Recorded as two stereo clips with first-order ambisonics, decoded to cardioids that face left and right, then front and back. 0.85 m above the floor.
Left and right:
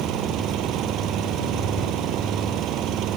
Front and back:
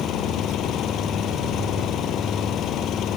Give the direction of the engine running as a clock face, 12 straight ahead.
2 o'clock.